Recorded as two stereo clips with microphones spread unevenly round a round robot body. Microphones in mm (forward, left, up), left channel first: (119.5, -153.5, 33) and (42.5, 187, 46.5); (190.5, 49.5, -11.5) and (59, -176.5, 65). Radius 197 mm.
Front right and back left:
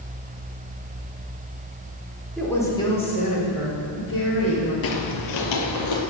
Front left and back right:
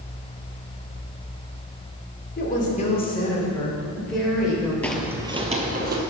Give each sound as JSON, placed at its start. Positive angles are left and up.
{"t": 2.4, "sound": "a woman speaking", "azimuth_deg": 10, "distance_m": 2.5}
{"t": 4.8, "sound": "footsteps", "azimuth_deg": -40, "distance_m": 1.0}